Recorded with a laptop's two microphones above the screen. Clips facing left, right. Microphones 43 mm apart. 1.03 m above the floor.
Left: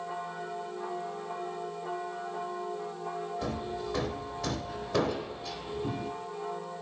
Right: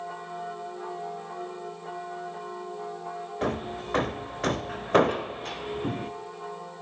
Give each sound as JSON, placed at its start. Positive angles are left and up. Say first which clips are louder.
{"t": 3.4, "sound": "hammering", "louder": "right 4 dB", "side_deg": -45, "distance_m": 1.0}